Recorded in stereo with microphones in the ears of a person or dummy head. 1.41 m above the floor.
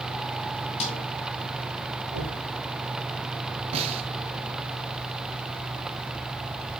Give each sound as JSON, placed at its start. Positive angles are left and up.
{"t": 0.8, "sound": "a snare drum", "side_deg": 35, "distance_m": 2.0}
{"t": 2.1, "sound": "knocking", "side_deg": -75, "distance_m": 2.5}
{"t": 3.7, "sound": "a snare drum", "side_deg": -35, "distance_m": 1.2}